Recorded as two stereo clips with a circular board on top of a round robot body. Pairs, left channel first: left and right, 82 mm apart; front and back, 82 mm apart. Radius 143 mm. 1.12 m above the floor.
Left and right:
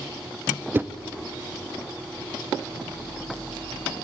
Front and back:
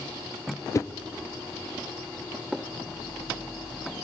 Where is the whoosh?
35° right, 0.8 m.